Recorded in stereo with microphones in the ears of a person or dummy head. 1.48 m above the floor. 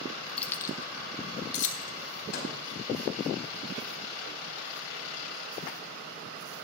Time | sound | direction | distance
0.4 | keys jangling | 10° left (ahead or behind) | 0.7 m
2.3 | a microwave | 65° left (ahead or behind) | 4.5 m